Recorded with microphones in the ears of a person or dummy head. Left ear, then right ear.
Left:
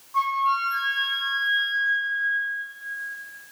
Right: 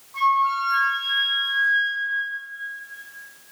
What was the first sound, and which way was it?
A flute, 5° left (ahead or behind).